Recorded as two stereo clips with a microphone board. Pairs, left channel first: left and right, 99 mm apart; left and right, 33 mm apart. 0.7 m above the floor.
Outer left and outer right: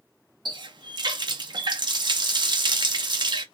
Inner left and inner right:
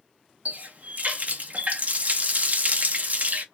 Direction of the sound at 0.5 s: 50° right (ahead or behind).